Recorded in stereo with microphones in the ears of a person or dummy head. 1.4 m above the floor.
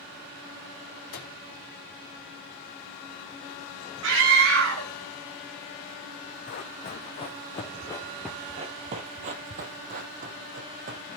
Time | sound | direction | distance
1.1 | a microwave | 50° left (ahead or behind) | 2.5 m
4.0 | a scream | 70° right (ahead or behind) | 3 m
6.5 | running footsteps | 40° left (ahead or behind) | 3.5 m